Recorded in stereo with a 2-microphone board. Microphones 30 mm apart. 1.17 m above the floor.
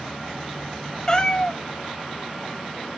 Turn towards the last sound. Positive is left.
turn(degrees=25)  # may be behind; listen again after turning